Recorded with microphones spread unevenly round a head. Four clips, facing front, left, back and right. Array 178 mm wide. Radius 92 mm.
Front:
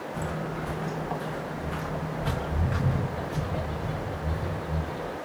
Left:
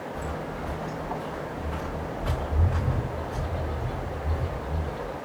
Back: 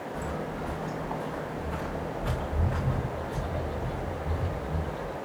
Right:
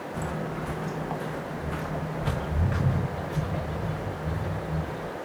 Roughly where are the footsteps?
Right.